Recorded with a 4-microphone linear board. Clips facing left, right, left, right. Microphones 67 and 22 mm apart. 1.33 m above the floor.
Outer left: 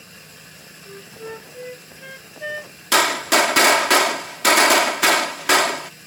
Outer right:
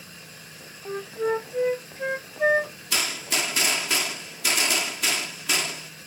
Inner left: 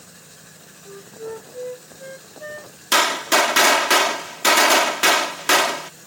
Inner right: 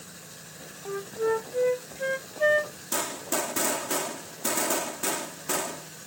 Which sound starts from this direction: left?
A gunshot, at 2.9 s.